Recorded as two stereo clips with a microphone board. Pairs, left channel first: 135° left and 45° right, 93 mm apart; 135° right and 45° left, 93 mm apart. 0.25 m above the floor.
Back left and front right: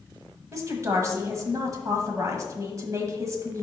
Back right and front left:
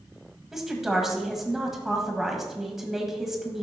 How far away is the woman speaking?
About 1.4 m.